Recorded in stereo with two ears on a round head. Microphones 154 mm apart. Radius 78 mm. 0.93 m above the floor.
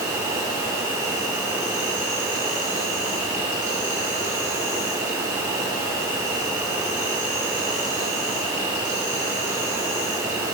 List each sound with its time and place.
0.0 s an insect: 15° right (ahead or behind), 0.9 m